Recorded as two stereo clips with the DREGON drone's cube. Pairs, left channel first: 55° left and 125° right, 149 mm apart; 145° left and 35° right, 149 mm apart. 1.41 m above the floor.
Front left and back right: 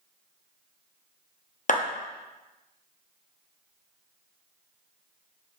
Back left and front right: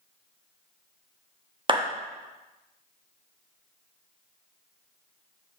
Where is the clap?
20° left, 1.0 m.